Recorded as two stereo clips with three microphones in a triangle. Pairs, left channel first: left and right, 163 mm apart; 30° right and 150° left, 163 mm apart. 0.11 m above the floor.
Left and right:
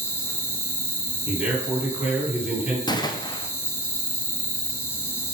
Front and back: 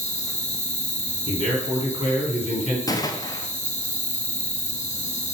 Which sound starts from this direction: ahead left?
A gunshot, at 2.9 s.